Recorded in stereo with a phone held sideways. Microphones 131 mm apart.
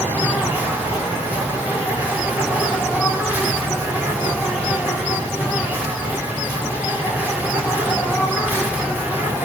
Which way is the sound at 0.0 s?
10° right (ahead or behind).